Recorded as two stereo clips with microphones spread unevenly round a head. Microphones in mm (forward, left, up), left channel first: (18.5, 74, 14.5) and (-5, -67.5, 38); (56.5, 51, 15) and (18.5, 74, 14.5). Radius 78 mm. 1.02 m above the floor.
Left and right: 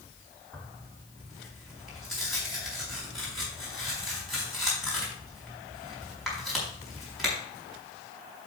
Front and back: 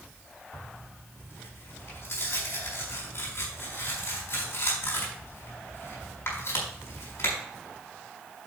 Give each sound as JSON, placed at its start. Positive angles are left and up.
{"t": 0.5, "sound": "tearing paper", "azimuth_deg": -10, "distance_m": 5.0}